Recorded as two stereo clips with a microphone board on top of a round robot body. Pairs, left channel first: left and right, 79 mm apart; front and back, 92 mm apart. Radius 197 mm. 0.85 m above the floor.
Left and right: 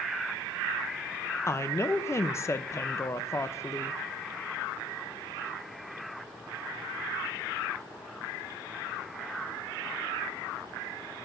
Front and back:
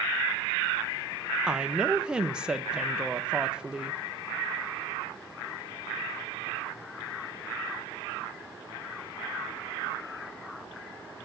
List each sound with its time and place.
1.5 s a woman speaking: 105° left, 0.8 m